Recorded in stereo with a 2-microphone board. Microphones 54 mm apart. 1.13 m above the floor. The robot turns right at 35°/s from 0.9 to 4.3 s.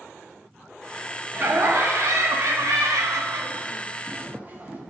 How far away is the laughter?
About 0.8 m.